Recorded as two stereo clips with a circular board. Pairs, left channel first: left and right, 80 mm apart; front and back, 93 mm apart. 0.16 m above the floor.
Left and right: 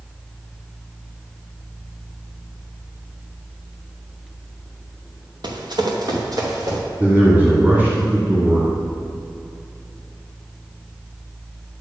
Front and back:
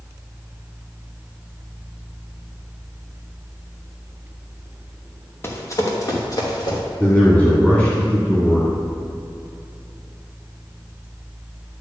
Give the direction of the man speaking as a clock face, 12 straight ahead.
2 o'clock.